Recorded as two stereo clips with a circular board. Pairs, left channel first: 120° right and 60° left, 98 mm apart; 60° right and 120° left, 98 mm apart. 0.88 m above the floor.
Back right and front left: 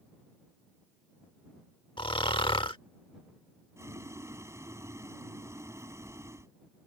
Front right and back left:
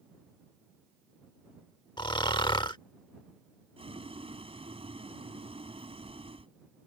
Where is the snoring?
95° right.